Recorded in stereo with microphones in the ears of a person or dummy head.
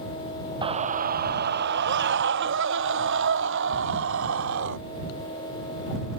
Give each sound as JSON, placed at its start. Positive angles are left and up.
{"t": 0.6, "sound": "a scream", "side_deg": -25}